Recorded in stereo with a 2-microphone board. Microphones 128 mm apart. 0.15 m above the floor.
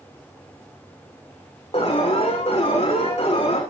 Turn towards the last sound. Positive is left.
turn(degrees=50)  # may be behind; listen again after turning